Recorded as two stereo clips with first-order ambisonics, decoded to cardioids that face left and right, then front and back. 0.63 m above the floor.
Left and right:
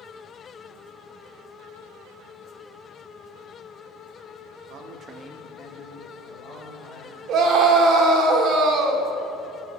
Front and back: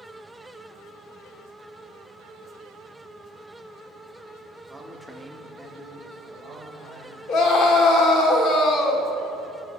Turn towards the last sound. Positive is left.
turn(degrees=-40)